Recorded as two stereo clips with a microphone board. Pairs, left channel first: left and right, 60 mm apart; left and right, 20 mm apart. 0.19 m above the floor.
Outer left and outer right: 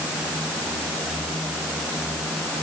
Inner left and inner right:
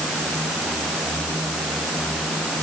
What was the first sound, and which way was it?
Only background noise.